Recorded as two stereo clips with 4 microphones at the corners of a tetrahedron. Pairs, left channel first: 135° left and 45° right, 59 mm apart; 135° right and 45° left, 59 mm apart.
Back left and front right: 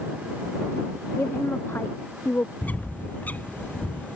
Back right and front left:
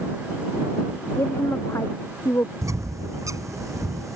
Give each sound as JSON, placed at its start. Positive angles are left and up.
{"t": 1.2, "sound": "a woman speaking", "azimuth_deg": -170}
{"t": 2.6, "sound": "a bird", "azimuth_deg": 75}